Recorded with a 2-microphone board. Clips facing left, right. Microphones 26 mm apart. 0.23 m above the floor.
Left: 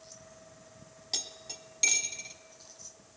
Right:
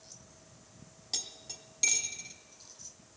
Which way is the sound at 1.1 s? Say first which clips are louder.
Left 2 dB; 15° left (ahead or behind).